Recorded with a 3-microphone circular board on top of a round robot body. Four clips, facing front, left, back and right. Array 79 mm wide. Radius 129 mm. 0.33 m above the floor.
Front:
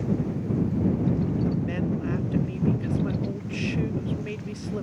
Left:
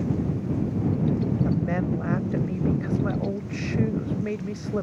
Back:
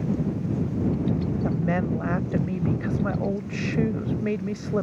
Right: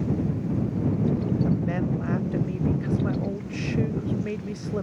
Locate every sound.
1.4 s a woman speaking: 165° left